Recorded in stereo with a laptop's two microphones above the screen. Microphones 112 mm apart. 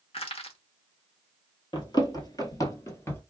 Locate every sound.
0.1 s crushing: 60° left (ahead or behind), 0.9 m
1.7 s running footsteps: 40° left (ahead or behind), 1.1 m; by 3.2 s 20° left (ahead or behind), 1.0 m